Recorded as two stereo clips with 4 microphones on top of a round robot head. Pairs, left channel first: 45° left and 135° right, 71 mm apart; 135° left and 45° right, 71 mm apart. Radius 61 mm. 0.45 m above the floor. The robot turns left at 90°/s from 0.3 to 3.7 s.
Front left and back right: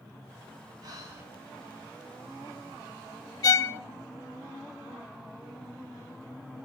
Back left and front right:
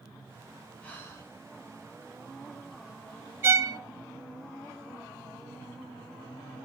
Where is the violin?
15° left, 0.6 m; by 3.8 s 10° right, 0.6 m.